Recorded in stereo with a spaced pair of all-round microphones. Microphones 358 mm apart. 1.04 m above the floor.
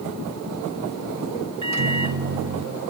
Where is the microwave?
50° right (ahead or behind), 0.5 m.